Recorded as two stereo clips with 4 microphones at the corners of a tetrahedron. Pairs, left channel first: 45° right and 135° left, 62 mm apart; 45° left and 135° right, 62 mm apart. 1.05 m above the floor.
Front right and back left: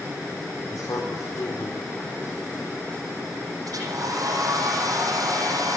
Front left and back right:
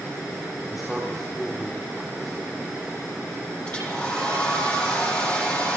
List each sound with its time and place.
0.7 s a man speaking: 45° right, 3.5 m
3.6 s a hair dryer: 115° left, 9.5 m